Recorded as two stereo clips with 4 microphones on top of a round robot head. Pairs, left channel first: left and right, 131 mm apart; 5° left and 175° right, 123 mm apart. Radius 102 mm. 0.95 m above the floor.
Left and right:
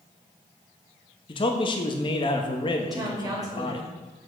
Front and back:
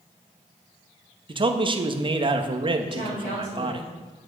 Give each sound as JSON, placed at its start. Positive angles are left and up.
{"t": 1.3, "sound": "a man speaking", "azimuth_deg": 140, "distance_m": 1.2}
{"t": 2.8, "sound": "a woman speaking", "azimuth_deg": -30, "distance_m": 5.0}